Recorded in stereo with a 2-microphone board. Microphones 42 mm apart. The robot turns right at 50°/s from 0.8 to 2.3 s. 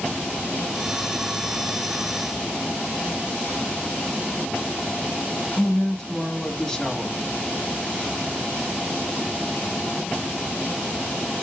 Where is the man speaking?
15° left (ahead or behind), 1.2 m.